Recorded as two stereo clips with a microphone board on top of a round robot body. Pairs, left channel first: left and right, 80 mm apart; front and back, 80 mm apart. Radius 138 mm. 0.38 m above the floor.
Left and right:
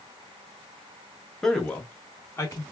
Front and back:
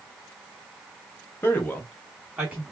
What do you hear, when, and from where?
1.4 s a man speaking: 10° left, 1.0 m; by 2.6 s 115° left, 1.1 m